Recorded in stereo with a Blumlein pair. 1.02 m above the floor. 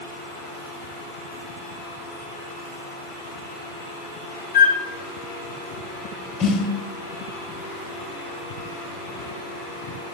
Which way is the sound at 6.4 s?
35° left.